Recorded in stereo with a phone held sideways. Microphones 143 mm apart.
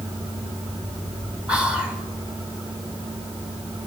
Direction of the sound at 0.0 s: 40° right (ahead or behind).